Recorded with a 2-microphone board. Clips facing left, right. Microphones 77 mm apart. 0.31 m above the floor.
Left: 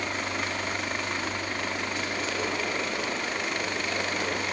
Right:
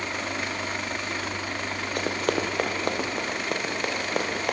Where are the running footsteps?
55° right (ahead or behind), 3.5 m; by 4.5 s 60° right (ahead or behind), 6.5 m.